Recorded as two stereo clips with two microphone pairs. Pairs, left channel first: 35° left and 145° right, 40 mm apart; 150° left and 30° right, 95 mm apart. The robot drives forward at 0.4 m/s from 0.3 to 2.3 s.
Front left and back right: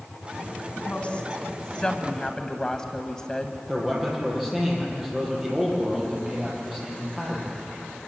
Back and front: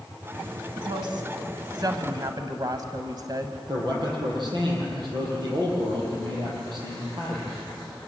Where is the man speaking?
65° right, 8 m.